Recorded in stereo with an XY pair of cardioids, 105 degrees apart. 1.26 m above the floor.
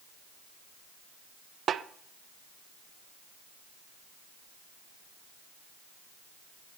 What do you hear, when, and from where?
1.7 s a snare drum: 55° right, 0.8 m